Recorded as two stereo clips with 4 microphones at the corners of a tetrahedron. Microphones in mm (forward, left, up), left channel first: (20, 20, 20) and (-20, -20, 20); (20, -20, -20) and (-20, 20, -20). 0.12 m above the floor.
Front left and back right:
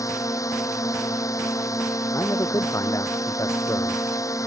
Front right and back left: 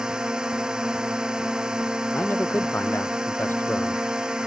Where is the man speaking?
10° left.